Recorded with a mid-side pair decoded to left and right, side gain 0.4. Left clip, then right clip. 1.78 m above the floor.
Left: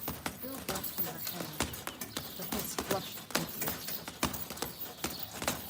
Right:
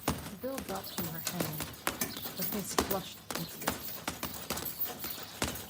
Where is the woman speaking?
45° right, 1.9 m; by 3.9 s 70° left, 0.7 m.